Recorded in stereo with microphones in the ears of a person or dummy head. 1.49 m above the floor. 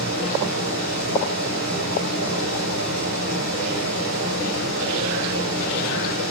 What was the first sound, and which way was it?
A fan, 60° right (ahead or behind).